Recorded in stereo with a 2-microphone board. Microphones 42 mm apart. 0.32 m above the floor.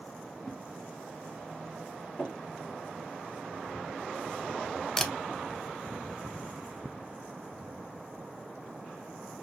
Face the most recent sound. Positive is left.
turn(degrees=10)  # may be behind; listen again after turning